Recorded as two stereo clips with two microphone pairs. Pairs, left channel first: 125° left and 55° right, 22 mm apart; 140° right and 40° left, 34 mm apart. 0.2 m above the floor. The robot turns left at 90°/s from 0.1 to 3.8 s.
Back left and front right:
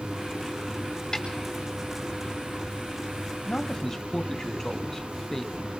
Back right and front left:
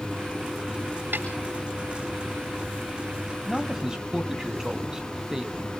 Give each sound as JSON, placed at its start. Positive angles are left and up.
{"t": 1.1, "sound": "a snare drum", "azimuth_deg": 60, "distance_m": 4.5}
{"t": 3.5, "sound": "a man speaking", "azimuth_deg": 110, "distance_m": 1.6}